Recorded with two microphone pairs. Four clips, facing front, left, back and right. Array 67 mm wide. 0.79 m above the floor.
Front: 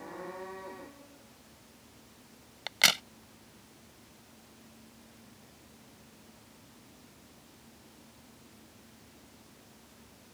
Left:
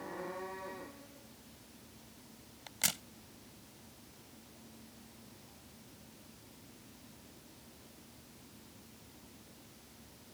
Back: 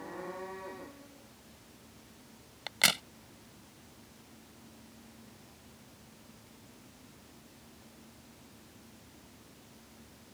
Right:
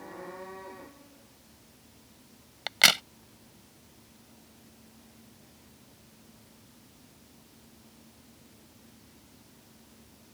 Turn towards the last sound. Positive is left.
turn(degrees=-85)